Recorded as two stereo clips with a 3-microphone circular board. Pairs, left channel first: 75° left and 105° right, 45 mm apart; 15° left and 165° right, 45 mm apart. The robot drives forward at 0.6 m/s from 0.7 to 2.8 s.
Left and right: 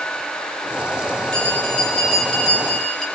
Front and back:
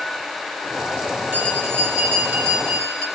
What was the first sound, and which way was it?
A bell, 150° left.